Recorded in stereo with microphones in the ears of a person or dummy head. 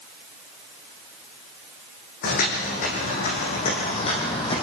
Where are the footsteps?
55° left (ahead or behind), 4.5 m; by 4.6 s 25° left (ahead or behind), 3.5 m.